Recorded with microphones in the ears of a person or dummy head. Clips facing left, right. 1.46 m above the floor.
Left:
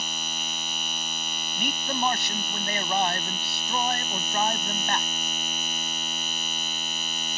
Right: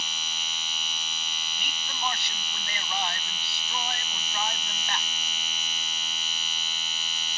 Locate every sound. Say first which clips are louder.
0.0 s a machine running: left 6 dB; 40° left (ahead or behind)
1.6 s a man speaking: left 10 dB; 50° left (ahead or behind)